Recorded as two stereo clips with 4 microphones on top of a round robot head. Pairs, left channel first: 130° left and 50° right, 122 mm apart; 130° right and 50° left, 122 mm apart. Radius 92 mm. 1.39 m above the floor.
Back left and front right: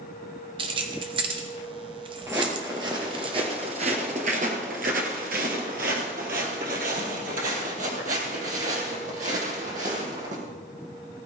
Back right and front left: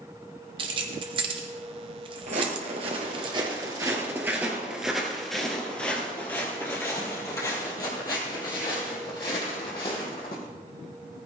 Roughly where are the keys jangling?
Ahead.